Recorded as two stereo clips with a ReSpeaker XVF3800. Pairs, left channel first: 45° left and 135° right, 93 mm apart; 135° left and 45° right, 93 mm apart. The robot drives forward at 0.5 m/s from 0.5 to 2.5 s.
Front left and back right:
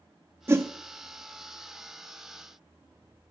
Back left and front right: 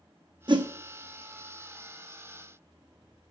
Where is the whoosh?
75° right, 0.7 m; by 0.7 s 85° right, 0.7 m.